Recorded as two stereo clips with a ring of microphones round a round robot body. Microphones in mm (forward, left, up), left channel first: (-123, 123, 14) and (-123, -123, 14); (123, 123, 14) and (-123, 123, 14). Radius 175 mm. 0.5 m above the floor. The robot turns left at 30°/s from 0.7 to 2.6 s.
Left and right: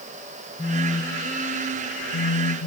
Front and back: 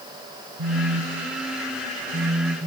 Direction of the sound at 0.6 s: 165° left.